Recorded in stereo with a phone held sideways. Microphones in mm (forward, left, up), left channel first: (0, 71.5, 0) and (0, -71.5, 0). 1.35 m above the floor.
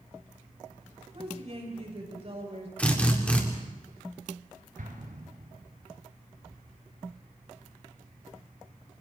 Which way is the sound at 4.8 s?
65° right (ahead or behind).